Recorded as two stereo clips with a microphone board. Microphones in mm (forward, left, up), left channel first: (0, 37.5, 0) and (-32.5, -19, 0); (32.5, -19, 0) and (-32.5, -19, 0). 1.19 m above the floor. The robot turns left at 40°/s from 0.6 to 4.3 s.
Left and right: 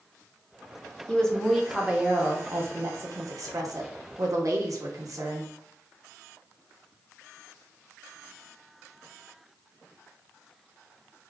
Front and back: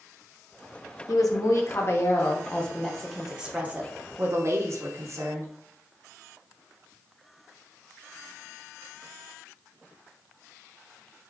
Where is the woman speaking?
15° right, 1.0 m; by 5.5 s 140° right, 1.0 m.